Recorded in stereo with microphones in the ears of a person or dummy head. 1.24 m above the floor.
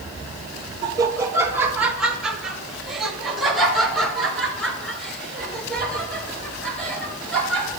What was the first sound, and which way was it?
Laughter, 30° right (ahead or behind).